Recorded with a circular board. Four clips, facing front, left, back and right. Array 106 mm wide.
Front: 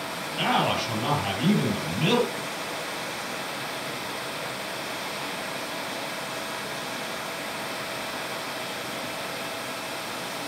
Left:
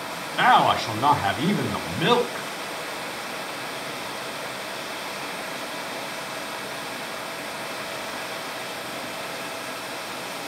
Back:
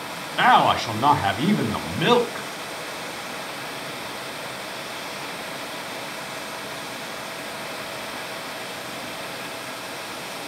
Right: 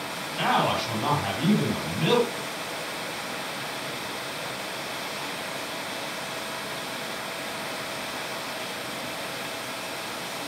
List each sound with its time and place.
0.4 s a man speaking: 150° left, 3 m